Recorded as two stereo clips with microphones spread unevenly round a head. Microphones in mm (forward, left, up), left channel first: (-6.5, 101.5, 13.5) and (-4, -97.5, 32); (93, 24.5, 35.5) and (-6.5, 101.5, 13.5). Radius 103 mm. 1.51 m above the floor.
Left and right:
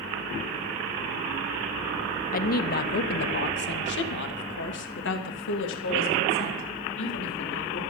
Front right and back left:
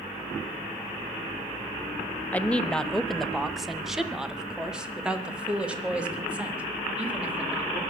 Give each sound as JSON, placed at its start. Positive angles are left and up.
{"t": 2.3, "sound": "a woman speaking", "azimuth_deg": 45, "distance_m": 1.0}